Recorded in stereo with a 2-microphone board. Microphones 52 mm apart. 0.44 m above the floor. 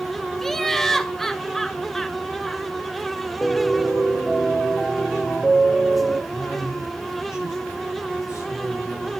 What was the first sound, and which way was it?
Laughter, 5° left (ahead or behind).